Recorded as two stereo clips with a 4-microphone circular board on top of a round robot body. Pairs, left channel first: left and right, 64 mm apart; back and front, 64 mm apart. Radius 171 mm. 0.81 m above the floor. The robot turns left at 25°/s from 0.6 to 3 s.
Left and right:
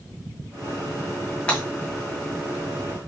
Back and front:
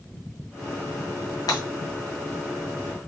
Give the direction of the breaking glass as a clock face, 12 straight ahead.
7 o'clock.